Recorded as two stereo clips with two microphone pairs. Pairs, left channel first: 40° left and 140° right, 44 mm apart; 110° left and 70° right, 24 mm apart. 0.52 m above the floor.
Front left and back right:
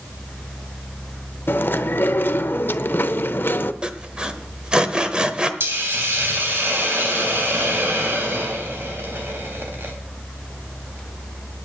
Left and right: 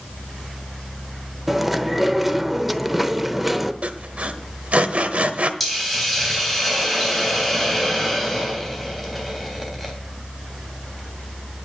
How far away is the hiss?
About 3.5 m.